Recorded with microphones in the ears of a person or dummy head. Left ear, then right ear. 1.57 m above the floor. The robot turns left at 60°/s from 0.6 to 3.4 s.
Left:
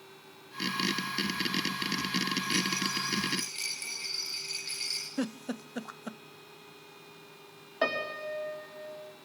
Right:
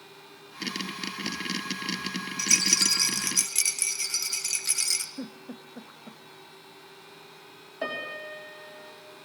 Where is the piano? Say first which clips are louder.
Left 2 dB; 35° left (ahead or behind), 4.5 m.